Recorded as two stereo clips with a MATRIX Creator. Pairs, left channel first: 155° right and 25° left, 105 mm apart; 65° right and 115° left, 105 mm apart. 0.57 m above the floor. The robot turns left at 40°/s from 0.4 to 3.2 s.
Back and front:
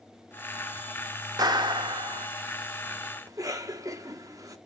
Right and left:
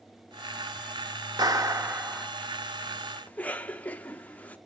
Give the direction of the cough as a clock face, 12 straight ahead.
12 o'clock.